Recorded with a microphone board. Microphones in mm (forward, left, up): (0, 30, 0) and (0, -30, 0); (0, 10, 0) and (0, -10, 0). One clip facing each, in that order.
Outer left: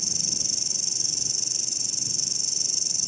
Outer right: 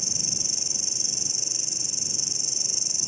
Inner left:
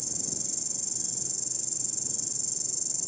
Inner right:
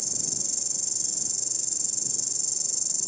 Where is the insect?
25° right (ahead or behind).